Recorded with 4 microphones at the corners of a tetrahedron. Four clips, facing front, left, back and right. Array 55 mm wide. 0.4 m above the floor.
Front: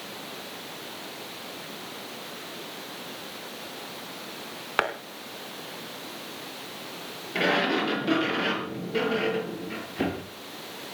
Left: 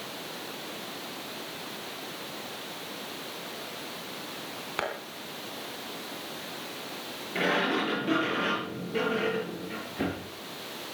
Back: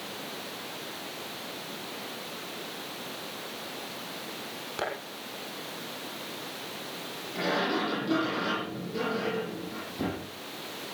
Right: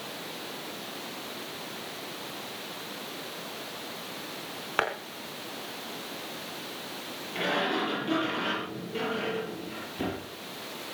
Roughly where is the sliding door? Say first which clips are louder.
Left 2 dB, front 4 dB; ahead.